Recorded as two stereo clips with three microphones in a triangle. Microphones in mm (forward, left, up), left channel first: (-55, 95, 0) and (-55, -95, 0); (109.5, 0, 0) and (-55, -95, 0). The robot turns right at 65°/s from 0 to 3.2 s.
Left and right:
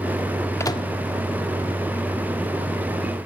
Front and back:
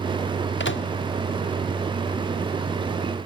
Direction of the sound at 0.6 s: 15° left.